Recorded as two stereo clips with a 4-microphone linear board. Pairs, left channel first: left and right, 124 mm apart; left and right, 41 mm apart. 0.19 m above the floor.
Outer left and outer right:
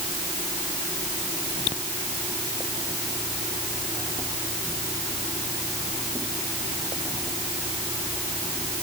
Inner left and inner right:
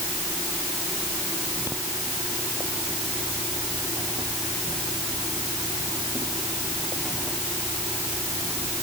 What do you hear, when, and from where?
Only background noise.